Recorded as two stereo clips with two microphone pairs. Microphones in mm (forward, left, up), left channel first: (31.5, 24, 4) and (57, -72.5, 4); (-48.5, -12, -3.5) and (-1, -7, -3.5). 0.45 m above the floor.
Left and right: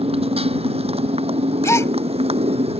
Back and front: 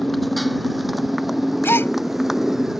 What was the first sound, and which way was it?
A motorcycle, 85° right.